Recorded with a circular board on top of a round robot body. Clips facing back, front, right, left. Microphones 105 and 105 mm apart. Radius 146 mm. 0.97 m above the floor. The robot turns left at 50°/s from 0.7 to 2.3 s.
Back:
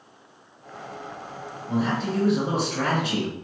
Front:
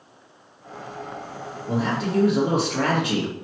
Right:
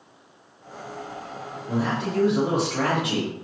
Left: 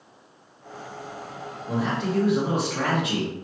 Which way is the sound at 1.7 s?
15° left.